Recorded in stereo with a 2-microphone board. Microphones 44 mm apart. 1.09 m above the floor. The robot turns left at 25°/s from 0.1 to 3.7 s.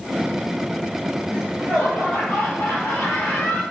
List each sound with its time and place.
1.3 s laughter: 170° left, 1.6 m; by 3.6 s 110° left, 1.6 m